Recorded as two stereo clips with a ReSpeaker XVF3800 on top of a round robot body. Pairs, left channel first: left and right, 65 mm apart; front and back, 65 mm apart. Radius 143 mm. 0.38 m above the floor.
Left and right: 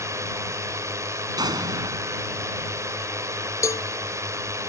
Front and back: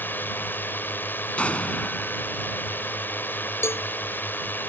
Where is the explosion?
75° right.